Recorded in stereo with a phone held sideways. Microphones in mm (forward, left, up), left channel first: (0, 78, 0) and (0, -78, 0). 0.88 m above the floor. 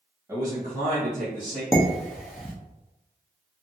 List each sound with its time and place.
0.3 s a man speaking: 20° right (ahead or behind), 1.2 m; by 1.6 s 45° right (ahead or behind), 1.8 m
1.7 s dishes clattering: centre (ahead or behind), 0.8 m